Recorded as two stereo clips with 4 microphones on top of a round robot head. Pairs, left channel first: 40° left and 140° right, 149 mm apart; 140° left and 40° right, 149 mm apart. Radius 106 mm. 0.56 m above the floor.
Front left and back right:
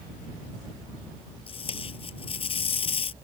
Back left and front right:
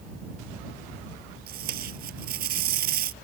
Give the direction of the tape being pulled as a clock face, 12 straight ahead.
1 o'clock.